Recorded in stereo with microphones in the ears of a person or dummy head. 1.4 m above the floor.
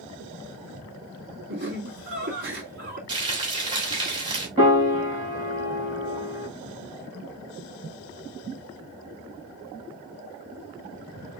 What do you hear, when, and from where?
1.5 s laughter: 60° right (ahead or behind), 3 m
3.1 s frying: 25° right (ahead or behind), 2.5 m
4.6 s a piano: 20° right (ahead or behind), 1.4 m